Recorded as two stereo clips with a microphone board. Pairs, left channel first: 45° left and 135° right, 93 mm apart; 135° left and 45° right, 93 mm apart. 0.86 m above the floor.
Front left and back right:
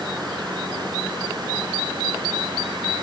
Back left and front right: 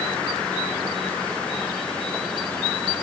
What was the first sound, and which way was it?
Only background noise.